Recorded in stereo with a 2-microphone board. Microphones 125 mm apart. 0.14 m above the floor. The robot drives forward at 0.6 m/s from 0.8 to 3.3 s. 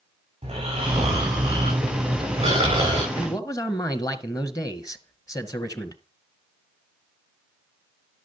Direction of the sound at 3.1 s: 25° left (ahead or behind).